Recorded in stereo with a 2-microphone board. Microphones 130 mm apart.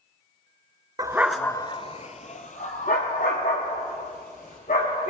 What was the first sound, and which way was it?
A dog barking, 30° right (ahead or behind).